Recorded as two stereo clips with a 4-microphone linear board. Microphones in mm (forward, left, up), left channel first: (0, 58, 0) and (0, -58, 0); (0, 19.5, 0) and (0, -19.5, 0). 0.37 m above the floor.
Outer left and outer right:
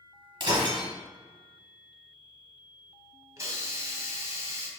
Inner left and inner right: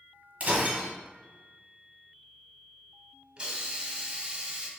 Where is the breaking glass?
40° right (ahead or behind), 1.1 m.